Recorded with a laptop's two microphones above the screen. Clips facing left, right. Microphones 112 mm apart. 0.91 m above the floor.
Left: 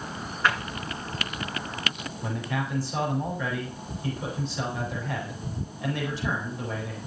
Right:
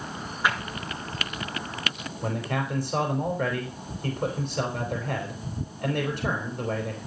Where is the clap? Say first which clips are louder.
Left 1 dB; 10° right (ahead or behind), 9 m.